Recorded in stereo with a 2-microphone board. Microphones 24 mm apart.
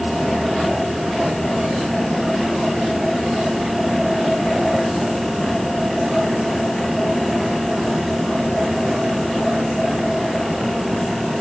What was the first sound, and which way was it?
Only background noise.